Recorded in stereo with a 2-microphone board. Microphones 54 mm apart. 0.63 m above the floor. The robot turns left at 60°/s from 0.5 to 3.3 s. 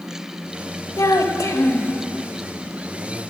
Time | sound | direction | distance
1.0 | a child speaking | 100° left | 1.4 m